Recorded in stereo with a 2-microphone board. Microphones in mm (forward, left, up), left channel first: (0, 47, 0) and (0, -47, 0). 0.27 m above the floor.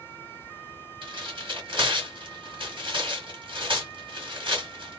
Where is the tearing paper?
60° right (ahead or behind), 1.9 m.